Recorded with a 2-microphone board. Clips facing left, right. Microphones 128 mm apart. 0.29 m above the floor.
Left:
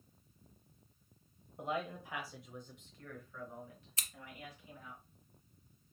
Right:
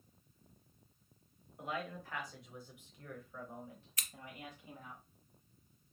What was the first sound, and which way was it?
A man speaking, 30° left (ahead or behind).